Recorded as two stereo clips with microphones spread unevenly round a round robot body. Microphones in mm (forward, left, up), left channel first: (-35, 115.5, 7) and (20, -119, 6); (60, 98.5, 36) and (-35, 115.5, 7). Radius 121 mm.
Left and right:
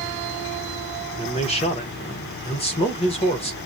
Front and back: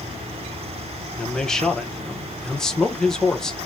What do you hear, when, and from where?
1.2 s a man speaking: 110° left, 1.0 m